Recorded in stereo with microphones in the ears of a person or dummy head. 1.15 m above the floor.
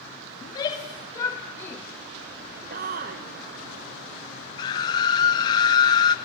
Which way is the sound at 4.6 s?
15° left (ahead or behind).